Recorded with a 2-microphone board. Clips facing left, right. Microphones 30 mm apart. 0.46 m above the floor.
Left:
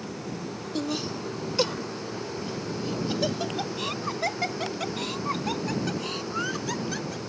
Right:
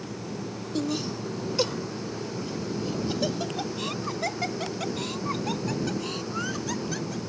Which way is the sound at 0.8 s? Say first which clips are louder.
Right 1 dB; 10° left (ahead or behind).